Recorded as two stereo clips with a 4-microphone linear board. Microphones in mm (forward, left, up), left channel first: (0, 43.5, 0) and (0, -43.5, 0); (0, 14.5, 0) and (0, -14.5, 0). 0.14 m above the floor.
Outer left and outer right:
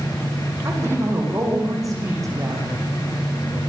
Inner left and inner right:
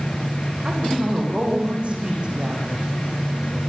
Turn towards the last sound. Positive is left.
turn(degrees=-40)  # may be behind; listen again after turning